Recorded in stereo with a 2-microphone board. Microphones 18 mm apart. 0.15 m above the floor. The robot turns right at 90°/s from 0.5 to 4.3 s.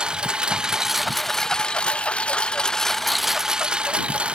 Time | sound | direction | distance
0.0 | a lawn mower | 55° right (ahead or behind) | ?